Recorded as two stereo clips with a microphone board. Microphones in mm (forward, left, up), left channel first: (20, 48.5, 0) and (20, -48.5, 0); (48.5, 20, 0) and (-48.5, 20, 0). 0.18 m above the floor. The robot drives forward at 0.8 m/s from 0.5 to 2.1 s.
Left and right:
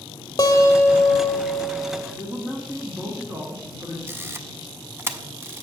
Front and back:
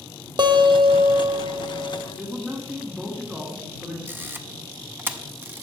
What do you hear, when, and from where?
0.4 s a guitar: 140° left, 0.9 m; by 2.1 s 165° left, 2.0 m
2.2 s a man speaking: 115° right, 1.3 m
4.1 s a camera shutter: 135° right, 0.6 m